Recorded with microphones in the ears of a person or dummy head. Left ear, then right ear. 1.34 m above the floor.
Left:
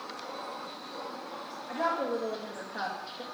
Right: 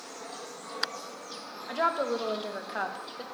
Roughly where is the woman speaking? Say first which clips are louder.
Right 2 dB; right.